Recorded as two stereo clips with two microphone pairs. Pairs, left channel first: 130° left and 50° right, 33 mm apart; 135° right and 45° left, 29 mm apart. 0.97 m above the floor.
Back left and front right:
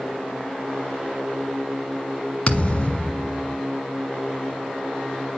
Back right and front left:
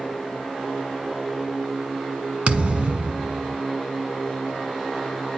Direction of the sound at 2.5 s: 75° left.